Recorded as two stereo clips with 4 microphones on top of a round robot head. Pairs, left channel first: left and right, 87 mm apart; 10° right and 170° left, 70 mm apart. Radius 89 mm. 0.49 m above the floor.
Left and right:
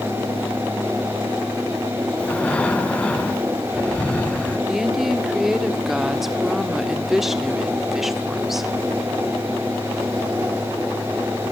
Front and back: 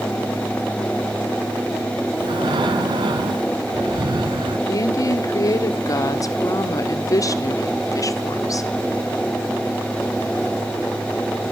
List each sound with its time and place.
2.2 s breathing: 165° left, 2 m
4.7 s a woman speaking: 5° right, 1.9 m